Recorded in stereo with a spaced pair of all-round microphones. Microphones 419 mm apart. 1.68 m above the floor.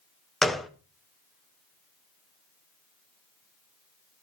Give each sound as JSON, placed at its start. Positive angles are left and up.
{"t": 0.4, "sound": "a gunshot", "side_deg": 0, "distance_m": 0.8}